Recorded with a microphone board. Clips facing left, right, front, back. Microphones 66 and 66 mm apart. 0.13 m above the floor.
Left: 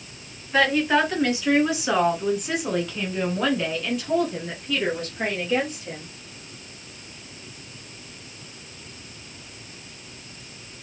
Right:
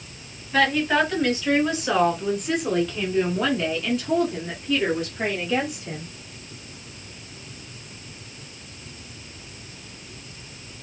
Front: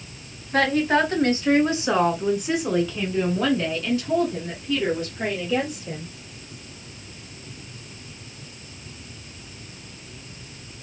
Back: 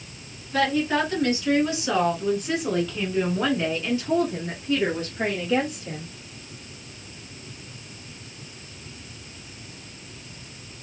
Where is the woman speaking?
10° left, 1.9 m; by 6.1 s 175° right, 2 m.